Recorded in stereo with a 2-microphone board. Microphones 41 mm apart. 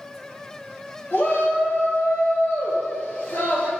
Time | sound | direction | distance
1.1 | a shout | 50° left (ahead or behind) | 1.8 m